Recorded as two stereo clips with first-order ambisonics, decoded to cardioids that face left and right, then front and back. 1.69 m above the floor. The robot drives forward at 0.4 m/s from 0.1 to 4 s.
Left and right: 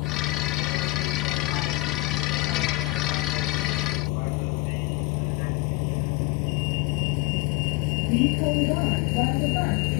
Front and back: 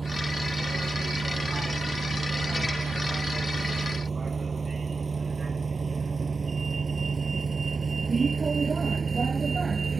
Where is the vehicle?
100° left; by 10.0 s 105° left.